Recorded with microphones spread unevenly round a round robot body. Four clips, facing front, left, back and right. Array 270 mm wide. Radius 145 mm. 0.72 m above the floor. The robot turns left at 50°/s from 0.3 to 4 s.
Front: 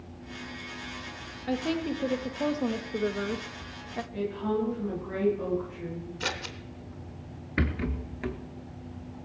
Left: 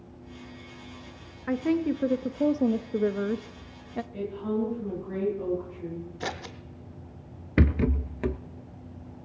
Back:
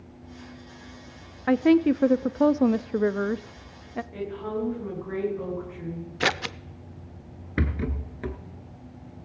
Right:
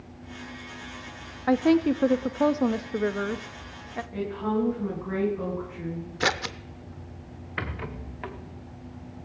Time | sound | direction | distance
1.5 | a woman speaking | 135° right | 0.6 m
4.1 | a woman speaking | 110° right | 10 m
6.2 | scissors | 130° right | 0.7 m
7.6 | a rattle | 95° left | 0.7 m